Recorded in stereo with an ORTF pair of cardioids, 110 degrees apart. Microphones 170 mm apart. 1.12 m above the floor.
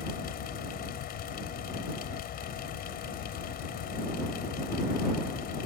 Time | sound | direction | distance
0.0 | a fan | 60° left | ?